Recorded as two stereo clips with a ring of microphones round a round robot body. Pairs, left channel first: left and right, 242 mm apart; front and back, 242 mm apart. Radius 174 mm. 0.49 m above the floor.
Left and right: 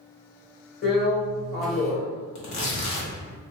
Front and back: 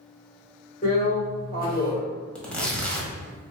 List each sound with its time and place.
0.8 s a drill: 50° left, 2.0 m
2.4 s tearing paper: 85° left, 1.3 m